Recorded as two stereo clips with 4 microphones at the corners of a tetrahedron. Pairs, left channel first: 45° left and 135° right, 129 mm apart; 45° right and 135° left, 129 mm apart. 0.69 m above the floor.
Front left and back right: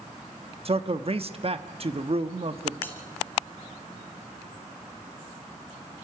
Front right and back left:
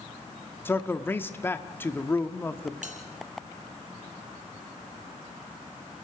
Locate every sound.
0.7 s a man speaking: 115° right, 1.2 m
2.8 s a bell: 120° left, 3.5 m